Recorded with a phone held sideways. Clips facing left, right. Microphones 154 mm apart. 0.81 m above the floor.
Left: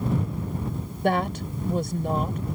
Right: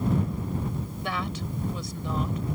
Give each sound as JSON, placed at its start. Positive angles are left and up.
{"t": 1.0, "sound": "a woman speaking", "side_deg": 50}